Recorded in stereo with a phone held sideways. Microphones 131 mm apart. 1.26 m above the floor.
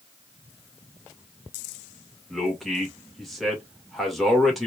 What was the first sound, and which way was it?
A man speaking, centre (ahead or behind).